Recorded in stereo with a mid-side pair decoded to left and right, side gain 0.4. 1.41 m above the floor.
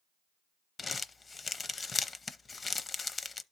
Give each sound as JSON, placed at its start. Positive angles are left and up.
{"t": 0.8, "sound": "crumpling", "azimuth_deg": 40, "distance_m": 0.7}